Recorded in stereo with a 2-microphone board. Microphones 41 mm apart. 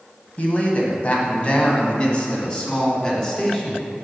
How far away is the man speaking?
About 1.3 m.